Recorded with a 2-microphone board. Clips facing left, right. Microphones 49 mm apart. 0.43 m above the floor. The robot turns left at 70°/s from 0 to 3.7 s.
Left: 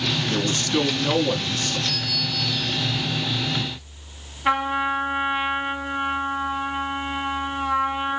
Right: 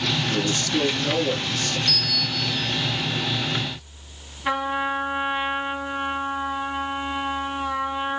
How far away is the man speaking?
About 3 m.